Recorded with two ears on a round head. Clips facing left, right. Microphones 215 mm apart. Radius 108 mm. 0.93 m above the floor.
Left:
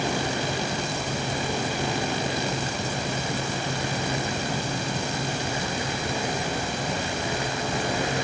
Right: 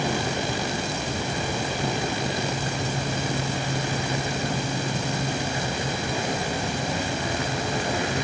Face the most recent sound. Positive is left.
No sound to turn to.